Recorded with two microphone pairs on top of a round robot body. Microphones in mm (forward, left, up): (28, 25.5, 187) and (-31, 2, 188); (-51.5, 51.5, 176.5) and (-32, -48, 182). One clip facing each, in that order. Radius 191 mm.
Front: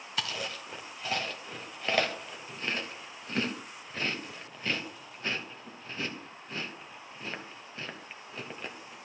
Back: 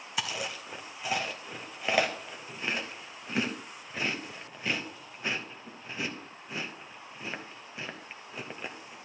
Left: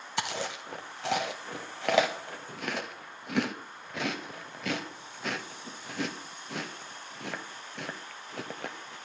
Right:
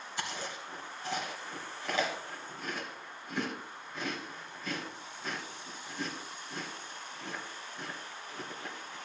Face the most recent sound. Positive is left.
turn(degrees=120)